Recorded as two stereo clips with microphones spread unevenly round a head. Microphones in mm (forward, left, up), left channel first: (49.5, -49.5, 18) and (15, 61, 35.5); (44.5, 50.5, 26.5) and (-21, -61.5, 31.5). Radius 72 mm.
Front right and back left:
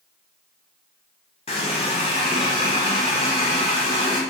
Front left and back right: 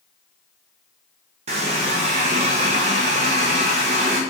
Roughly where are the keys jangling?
I don't hear keys jangling.